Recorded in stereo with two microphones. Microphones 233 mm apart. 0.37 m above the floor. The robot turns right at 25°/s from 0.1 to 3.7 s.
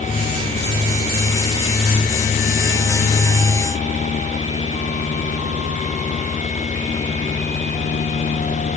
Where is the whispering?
I don't hear whispering.